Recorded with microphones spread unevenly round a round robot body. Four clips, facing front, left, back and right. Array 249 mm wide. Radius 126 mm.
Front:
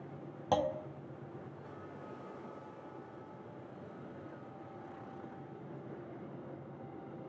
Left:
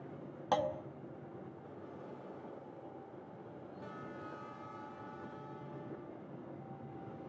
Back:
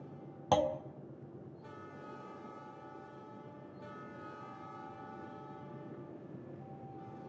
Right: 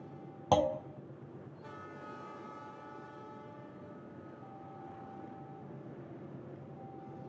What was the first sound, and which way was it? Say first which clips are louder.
A clunk: right 5 dB, back 2 dB; 100° right.